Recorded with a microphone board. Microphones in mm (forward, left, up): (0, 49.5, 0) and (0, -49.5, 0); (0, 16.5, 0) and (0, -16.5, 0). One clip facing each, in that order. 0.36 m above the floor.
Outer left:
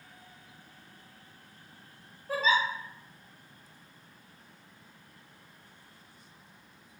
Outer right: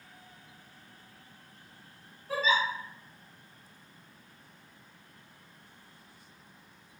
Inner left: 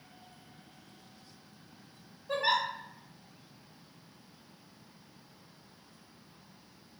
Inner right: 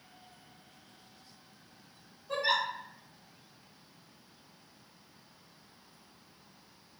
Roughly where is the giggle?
Left.